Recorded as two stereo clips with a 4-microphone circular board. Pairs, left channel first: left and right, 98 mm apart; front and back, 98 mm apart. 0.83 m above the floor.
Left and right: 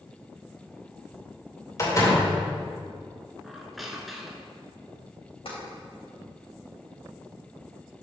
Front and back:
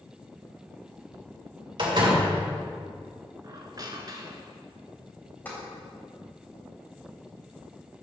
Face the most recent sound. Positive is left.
turn(degrees=70)